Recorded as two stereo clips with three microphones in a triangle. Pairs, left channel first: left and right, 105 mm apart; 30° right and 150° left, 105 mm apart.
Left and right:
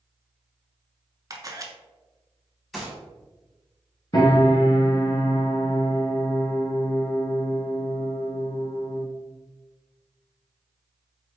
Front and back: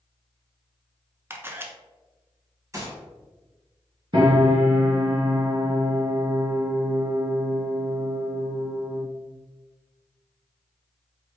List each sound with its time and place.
1.3 s a camera shutter: 140° right, 0.7 m
2.7 s a gunshot: straight behind, 1.9 m
4.1 s a piano: 130° left, 1.8 m